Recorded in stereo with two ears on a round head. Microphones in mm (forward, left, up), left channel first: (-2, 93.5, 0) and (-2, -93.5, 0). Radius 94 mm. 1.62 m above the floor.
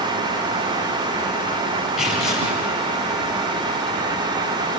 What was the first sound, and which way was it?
Tearing paper, 5° right (ahead or behind).